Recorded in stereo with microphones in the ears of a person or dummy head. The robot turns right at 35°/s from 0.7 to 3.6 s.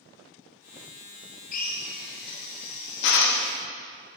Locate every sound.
1.5 s a drill: 40° left (ahead or behind), 0.8 m; by 3.5 s 50° left (ahead or behind), 0.8 m